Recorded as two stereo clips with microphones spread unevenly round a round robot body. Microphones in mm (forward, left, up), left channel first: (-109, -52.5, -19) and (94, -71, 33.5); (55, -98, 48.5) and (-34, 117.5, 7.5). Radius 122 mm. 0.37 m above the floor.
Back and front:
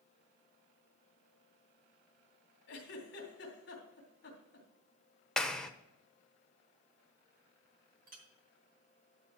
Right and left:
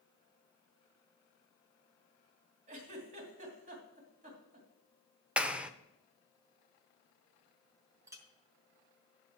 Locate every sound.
2.7 s a giggle: 165° left, 2.5 m
5.4 s a clap: 150° left, 0.6 m
8.1 s a clink: 50° left, 1.2 m